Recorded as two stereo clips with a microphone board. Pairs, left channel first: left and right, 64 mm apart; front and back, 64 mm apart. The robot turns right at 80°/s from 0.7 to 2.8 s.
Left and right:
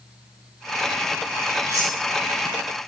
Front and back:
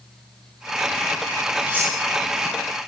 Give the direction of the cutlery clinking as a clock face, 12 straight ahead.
4 o'clock.